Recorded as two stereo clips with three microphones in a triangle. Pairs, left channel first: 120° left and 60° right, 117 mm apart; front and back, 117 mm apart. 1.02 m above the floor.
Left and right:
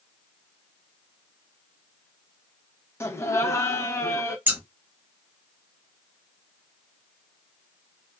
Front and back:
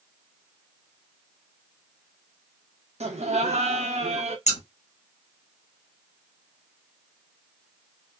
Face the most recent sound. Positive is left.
turn(degrees=15)